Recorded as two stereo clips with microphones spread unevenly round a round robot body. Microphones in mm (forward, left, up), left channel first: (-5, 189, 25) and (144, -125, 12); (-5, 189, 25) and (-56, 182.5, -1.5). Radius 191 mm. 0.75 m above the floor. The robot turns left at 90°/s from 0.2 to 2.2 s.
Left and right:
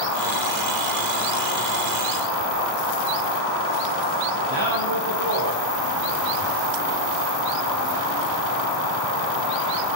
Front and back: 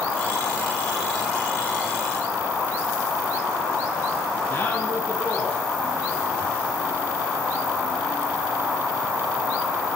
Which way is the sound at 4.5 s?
30° right.